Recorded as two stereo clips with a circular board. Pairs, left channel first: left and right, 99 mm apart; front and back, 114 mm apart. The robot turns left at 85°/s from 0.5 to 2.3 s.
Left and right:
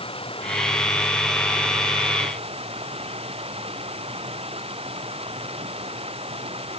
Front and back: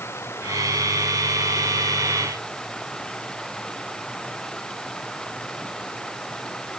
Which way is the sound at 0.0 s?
70° left.